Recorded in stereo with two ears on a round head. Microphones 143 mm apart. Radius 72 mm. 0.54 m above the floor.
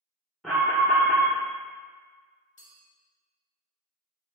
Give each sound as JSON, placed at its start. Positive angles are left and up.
{"t": 0.4, "sound": "an alarm", "side_deg": 0, "distance_m": 1.0}
{"t": 2.6, "sound": "a clink", "side_deg": 50, "distance_m": 1.0}